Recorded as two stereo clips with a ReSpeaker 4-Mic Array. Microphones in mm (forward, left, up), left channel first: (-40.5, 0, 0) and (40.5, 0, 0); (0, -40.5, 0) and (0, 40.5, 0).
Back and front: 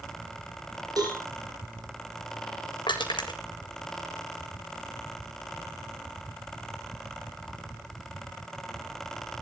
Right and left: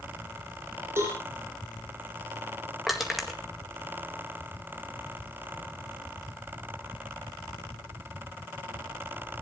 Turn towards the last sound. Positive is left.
turn(degrees=180)